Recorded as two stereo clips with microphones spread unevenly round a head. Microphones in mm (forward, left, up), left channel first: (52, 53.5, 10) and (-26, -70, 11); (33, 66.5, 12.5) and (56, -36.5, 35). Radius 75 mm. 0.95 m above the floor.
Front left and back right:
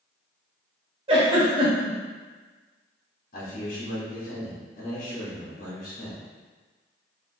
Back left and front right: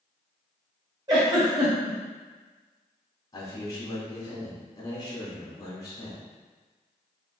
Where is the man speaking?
80° left, 1.3 m.